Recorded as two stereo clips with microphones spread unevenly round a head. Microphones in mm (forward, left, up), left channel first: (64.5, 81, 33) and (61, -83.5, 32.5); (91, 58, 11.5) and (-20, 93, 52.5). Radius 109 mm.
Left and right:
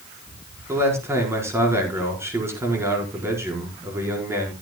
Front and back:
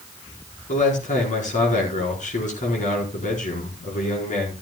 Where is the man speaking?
15° right, 4.5 m.